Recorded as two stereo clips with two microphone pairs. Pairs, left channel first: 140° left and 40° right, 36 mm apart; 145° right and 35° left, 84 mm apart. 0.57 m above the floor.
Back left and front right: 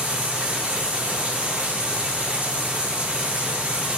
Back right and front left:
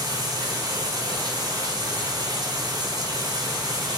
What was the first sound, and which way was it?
Running water, straight ahead.